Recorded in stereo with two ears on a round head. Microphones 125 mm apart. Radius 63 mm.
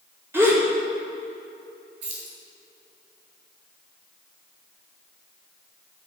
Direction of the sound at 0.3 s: 20° right (ahead or behind).